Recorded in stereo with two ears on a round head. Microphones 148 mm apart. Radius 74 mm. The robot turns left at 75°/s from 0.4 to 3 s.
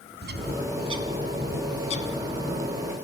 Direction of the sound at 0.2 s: 65° right (ahead or behind).